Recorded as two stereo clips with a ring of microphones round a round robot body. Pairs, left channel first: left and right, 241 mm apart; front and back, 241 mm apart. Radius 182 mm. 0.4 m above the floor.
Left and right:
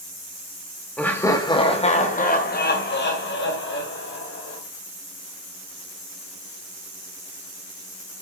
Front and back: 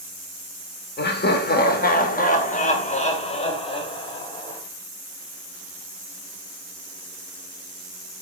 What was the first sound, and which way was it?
Laughter, 5° left.